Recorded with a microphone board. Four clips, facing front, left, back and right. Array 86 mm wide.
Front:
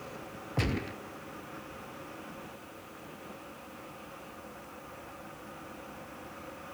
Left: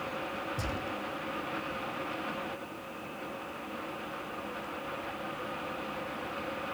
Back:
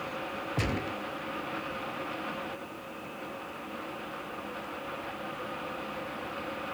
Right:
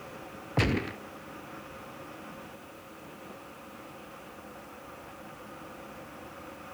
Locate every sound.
0.6 s a gunshot: 95° right, 0.6 m